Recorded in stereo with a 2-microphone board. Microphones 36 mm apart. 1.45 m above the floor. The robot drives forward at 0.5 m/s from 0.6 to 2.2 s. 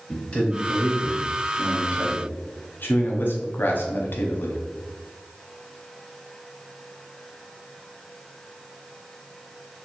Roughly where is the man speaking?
Left.